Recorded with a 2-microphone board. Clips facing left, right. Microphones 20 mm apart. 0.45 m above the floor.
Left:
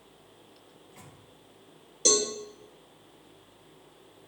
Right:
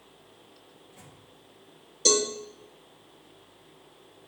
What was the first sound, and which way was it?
A microwave, 75° left (ahead or behind).